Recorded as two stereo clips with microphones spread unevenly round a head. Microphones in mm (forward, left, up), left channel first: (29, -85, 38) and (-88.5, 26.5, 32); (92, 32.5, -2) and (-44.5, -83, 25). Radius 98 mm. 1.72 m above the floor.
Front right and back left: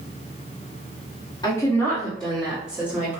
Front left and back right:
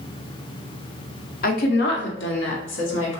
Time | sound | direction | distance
1.4 | a woman speaking | 15° left | 0.7 m